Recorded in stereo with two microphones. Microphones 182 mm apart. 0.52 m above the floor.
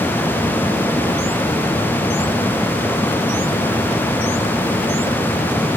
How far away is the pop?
I don't hear a pop.